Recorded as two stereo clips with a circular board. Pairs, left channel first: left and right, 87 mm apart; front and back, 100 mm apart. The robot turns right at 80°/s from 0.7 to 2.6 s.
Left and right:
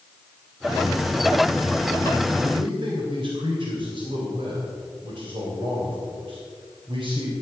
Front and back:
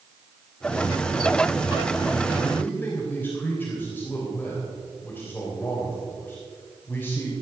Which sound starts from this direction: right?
A man speaking, at 2.4 s.